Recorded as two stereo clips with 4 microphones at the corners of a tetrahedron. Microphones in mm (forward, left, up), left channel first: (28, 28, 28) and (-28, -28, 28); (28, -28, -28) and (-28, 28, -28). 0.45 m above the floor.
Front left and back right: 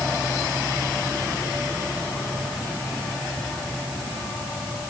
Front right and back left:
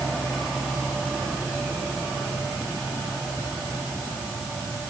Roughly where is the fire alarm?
No fire alarm in this recording.